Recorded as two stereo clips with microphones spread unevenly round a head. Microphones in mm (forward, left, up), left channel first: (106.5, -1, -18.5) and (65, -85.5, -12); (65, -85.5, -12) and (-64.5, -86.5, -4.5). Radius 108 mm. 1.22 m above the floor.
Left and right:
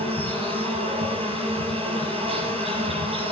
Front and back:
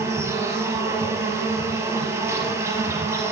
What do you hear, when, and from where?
0.0 s an insect: 110° right, 5 m